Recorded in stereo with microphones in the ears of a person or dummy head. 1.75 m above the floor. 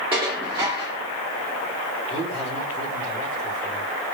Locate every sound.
0.1 s dishes clattering: 10° right (ahead or behind), 0.7 m
2.1 s a man speaking: 40° right (ahead or behind), 3 m